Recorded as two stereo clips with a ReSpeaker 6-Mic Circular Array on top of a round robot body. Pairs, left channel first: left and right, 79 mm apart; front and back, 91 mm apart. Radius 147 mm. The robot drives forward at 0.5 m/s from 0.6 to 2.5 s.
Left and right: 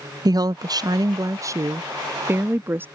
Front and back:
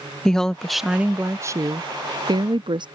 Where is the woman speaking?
85° right; by 2.9 s 150° right.